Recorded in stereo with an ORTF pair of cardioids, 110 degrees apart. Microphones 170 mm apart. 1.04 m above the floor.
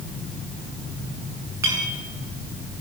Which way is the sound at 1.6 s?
15° right.